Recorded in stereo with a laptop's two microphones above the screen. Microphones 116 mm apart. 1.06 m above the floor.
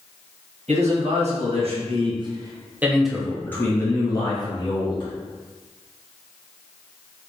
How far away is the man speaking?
About 1.3 m.